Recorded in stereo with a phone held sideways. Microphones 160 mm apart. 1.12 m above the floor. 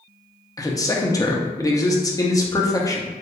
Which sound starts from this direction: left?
A man speaking, at 0.6 s.